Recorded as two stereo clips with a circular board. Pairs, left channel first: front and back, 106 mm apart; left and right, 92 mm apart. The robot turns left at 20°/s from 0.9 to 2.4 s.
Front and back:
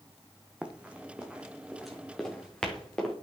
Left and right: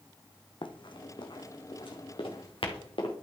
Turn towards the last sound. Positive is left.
turn(degrees=85)